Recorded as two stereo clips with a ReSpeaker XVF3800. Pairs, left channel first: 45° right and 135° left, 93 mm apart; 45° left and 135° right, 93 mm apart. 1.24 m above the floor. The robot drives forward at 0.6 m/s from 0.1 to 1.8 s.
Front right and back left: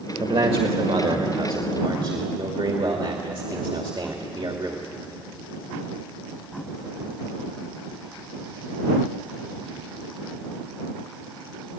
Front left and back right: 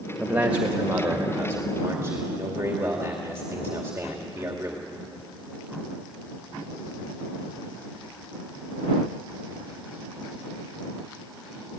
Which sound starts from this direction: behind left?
A man speaking, at 0.2 s.